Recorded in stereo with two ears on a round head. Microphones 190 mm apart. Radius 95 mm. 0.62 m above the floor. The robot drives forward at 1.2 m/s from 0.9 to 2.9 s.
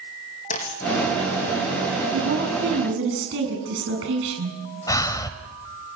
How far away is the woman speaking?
About 7.5 m.